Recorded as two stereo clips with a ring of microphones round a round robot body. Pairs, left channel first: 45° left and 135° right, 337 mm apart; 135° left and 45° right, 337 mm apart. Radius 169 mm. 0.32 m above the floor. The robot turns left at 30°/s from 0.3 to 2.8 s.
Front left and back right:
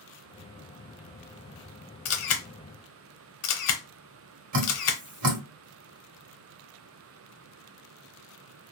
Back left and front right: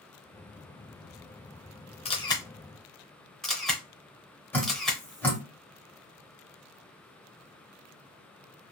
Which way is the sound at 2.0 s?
70° left.